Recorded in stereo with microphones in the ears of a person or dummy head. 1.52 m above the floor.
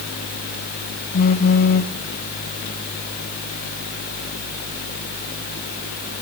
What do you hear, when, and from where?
1.1 s a phone buzzing: 50° left (ahead or behind), 0.9 m